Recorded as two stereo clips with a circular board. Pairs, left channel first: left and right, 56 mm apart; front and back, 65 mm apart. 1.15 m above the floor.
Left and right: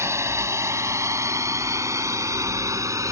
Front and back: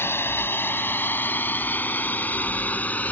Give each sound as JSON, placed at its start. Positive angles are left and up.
{"t": 0.0, "sound": "a drone", "azimuth_deg": -55}